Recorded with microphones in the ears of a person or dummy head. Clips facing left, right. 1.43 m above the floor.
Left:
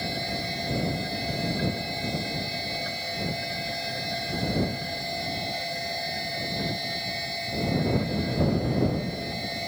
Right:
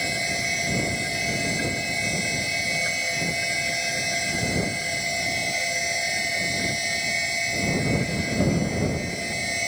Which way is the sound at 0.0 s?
40° right (ahead or behind).